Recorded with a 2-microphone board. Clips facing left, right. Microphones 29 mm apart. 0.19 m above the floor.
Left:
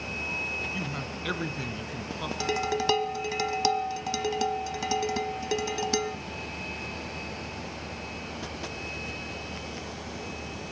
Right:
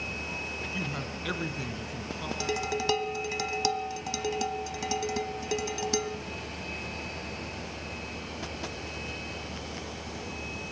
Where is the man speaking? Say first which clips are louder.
Even; centre (ahead or behind), 1.2 m; by 2.3 s 25° left (ahead or behind), 1.9 m.